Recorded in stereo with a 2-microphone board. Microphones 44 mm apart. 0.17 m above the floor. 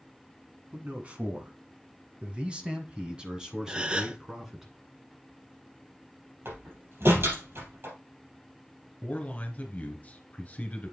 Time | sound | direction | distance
0.7 | a man speaking | 30° right (ahead or behind) | 1.7 m
3.7 | a gasp | 20° right (ahead or behind) | 0.5 m
6.5 | a door slam | 65° right (ahead or behind) | 3.5 m
9.0 | a man speaking | 30° left (ahead or behind) | 2 m